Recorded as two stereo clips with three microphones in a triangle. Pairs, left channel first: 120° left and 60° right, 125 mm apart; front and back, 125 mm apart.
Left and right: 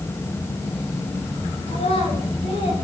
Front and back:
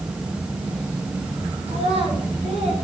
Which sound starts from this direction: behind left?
A child speaking, at 1.7 s.